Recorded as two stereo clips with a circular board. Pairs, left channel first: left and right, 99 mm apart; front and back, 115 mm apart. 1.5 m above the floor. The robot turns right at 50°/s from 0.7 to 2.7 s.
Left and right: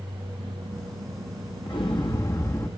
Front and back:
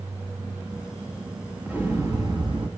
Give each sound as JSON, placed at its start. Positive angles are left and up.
{"t": 1.7, "sound": "an explosion", "azimuth_deg": 105, "distance_m": 1.3}